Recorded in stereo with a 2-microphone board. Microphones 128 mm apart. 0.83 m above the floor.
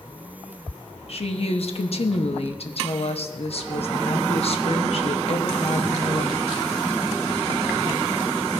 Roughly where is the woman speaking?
Left.